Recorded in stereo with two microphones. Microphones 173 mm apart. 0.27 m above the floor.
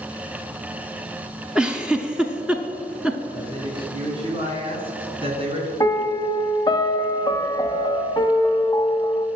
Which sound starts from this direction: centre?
A giggle, at 1.6 s.